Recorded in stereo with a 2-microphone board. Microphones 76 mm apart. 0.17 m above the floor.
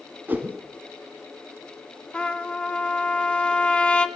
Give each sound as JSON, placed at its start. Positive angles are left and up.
{"t": 0.3, "sound": "a whoosh", "side_deg": -25, "distance_m": 0.9}
{"t": 2.1, "sound": "a trumpet", "side_deg": 15, "distance_m": 0.6}